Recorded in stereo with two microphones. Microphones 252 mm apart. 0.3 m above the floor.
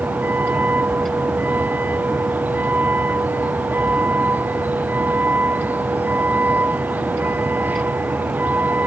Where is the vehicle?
5° right (ahead or behind).